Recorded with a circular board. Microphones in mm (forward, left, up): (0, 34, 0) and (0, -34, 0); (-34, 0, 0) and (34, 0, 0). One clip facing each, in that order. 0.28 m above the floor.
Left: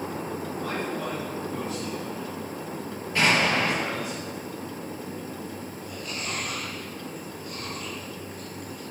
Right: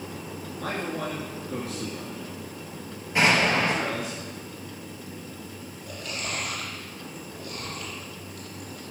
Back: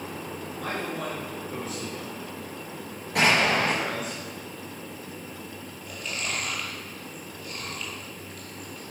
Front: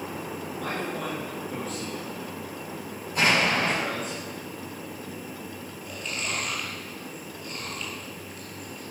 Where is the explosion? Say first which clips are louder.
Right 1 dB, back 1 dB; 160° right, 5 m.